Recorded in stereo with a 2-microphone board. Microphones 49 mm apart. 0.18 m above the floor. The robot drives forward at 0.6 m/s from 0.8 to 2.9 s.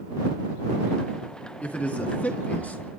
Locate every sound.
1.6 s a man speaking: 25° left (ahead or behind), 2 m; by 2.9 s 35° left (ahead or behind), 1.7 m